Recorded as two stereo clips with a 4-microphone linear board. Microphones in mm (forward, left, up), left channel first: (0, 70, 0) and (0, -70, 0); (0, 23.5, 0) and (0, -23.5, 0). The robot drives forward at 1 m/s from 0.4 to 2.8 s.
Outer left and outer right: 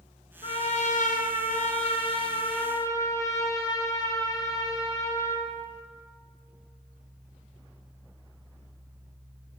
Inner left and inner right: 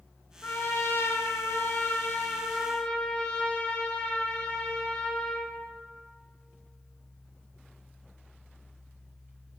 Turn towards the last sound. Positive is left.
turn(degrees=25)  # may be behind; listen again after turning